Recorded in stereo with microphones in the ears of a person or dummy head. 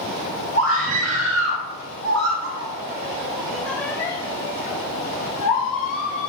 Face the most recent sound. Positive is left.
turn(degrees=65)  # may be behind; listen again after turning